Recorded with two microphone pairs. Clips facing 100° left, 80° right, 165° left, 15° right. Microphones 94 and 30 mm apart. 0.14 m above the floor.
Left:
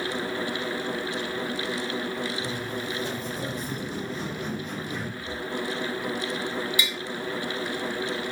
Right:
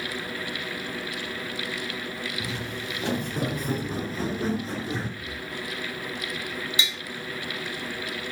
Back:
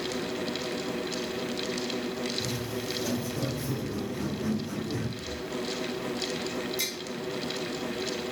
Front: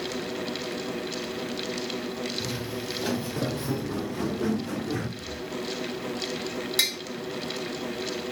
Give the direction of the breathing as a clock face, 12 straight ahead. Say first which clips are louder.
Left 3 dB, even; 12 o'clock.